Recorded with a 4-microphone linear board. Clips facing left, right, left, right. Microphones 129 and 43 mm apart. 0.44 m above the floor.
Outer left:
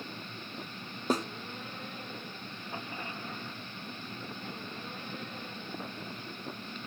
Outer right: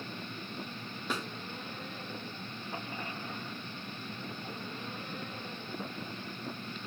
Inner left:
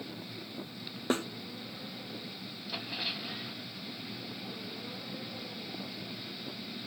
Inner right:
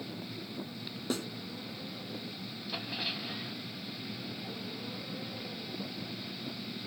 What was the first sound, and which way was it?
A snare drum, 40° left (ahead or behind).